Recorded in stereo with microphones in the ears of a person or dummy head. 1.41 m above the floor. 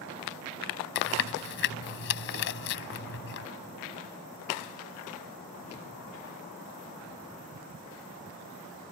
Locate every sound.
0.9 s chewing: 60° left (ahead or behind)